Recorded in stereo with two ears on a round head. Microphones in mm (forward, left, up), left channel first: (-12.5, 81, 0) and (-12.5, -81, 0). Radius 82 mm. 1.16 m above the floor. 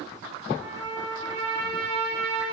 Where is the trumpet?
85° right, 4.5 m.